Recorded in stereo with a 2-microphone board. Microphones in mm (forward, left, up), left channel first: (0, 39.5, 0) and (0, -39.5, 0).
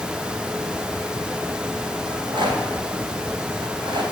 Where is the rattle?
80° right, 2.5 m.